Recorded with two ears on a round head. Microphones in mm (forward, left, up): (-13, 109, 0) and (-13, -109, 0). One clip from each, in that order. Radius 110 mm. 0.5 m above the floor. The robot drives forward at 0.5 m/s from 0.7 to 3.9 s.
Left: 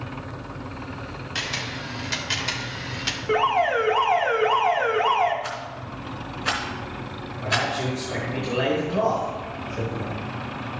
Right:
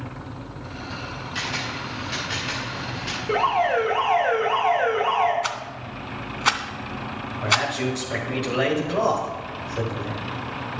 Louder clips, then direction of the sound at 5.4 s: Right 3 dB; 50° right (ahead or behind).